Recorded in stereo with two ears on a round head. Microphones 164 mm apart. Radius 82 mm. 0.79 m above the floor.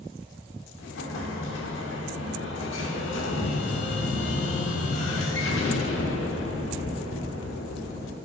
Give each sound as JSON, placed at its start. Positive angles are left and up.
{"t": 0.8, "sound": "an explosion", "side_deg": 75, "distance_m": 1.3}